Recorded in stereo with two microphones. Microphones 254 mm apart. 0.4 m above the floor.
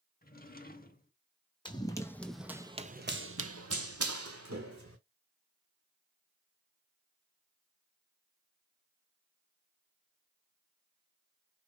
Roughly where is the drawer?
Left.